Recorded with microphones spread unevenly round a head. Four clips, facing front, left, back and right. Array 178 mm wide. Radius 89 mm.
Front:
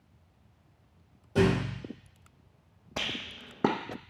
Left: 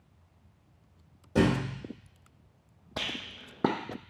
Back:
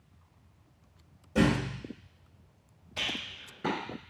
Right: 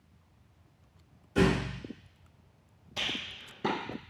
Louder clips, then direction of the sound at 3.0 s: Left 1 dB, front 2 dB; 40° left.